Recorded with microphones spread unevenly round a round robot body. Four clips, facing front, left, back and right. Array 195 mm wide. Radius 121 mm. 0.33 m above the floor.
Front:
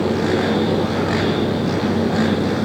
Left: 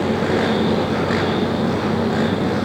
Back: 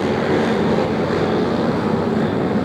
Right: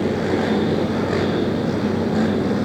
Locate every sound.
Only background noise.